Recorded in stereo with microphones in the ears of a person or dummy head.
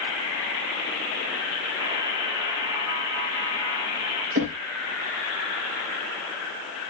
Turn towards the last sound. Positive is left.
turn(degrees=-50)  # may be behind; listen again after turning